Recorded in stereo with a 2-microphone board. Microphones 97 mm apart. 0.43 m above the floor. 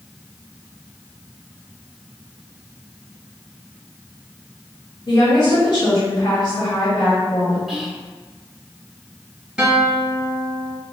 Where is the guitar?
5° right (ahead or behind), 1.9 m.